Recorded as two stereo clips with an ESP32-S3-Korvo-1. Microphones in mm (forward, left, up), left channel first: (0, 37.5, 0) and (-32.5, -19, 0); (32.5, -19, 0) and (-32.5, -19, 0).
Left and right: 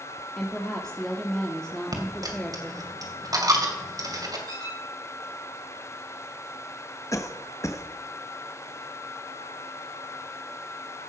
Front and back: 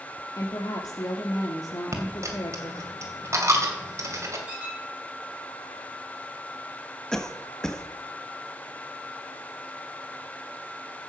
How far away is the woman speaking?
About 1.6 m.